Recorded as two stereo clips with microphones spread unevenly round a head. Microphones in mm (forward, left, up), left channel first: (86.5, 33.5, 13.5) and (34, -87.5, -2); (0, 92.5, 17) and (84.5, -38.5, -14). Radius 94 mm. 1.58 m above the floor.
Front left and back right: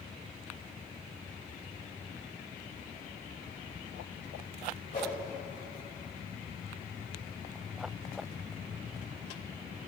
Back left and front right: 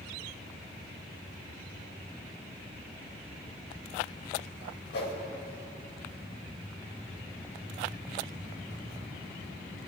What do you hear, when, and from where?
4.9 s a whoosh: 120° left, 2.5 m